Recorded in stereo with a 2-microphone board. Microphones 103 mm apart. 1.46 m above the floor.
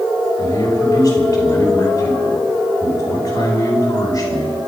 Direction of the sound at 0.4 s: 35° left (ahead or behind).